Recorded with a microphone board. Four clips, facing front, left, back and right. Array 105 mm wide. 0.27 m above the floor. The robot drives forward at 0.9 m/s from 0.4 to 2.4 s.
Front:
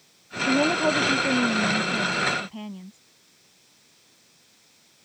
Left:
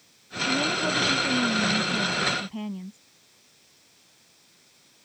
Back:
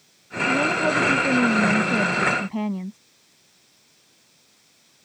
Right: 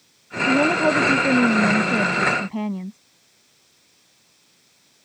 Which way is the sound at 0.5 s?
65° right.